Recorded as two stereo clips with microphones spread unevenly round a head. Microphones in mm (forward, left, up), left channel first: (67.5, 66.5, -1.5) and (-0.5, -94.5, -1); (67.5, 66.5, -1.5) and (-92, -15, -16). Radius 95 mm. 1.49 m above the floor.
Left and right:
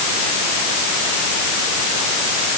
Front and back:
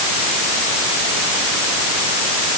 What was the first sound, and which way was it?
Only background noise.